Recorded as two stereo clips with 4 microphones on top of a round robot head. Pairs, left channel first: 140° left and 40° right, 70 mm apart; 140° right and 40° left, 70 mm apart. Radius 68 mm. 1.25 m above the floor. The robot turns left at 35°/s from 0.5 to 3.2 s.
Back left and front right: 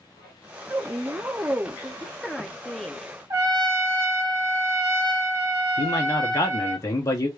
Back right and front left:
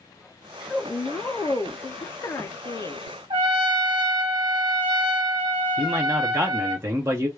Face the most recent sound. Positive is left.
turn(degrees=95)